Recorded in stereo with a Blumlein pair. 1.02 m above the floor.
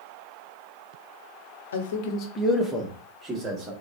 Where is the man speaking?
65° left, 0.7 m; by 3.7 s 20° right, 1.6 m.